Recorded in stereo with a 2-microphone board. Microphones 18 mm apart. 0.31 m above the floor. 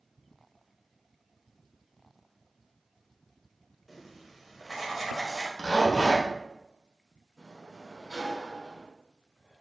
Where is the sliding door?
15° right (ahead or behind), 1.3 m.